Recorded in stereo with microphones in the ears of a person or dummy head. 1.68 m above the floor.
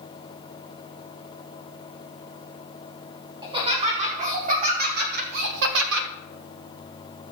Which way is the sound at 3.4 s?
35° right (ahead or behind).